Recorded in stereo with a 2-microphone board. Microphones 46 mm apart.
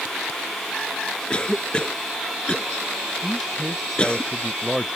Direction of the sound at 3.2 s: Centre (ahead or behind).